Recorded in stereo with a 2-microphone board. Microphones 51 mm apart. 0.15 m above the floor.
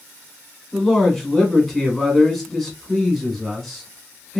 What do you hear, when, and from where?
0.7 s a man speaking: 5° left (ahead or behind), 1.0 m